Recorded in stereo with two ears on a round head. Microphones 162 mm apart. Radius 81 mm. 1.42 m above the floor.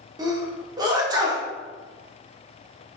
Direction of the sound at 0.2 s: 20° right (ahead or behind).